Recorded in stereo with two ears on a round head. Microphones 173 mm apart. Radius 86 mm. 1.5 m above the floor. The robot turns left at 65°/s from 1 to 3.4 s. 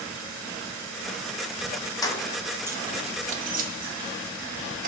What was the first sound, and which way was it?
Keys jangling, 20° left (ahead or behind).